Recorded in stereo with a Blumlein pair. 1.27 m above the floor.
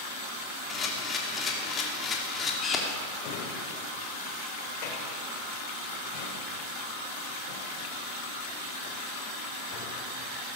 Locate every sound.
0.7 s a camera shutter: 20° left, 3 m
3.2 s a drawer: 45° left, 3 m